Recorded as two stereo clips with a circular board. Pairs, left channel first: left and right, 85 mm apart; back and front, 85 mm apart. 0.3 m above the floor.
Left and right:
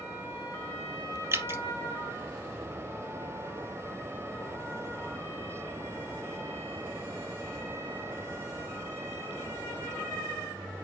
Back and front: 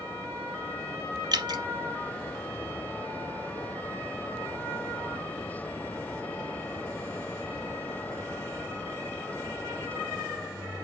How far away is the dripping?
About 1.2 m.